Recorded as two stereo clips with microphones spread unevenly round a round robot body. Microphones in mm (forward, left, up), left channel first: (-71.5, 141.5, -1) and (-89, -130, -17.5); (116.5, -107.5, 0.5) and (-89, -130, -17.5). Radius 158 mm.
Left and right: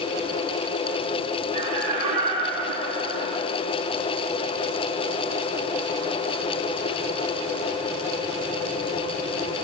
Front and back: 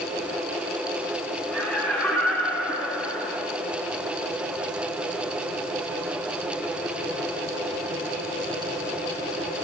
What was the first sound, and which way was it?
Laughter, 80° right.